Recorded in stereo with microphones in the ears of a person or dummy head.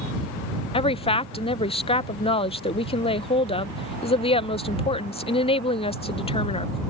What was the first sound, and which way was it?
A woman speaking, 25° left (ahead or behind).